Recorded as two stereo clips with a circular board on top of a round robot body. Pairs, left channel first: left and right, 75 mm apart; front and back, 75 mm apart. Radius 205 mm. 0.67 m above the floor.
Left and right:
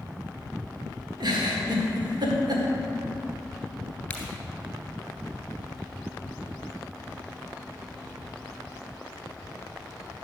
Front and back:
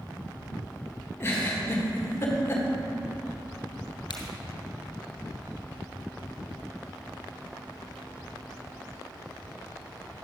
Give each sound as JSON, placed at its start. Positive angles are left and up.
{"t": 1.2, "sound": "a giggle", "azimuth_deg": -60, "distance_m": 1.6}
{"t": 4.1, "sound": "a crack", "azimuth_deg": 15, "distance_m": 2.0}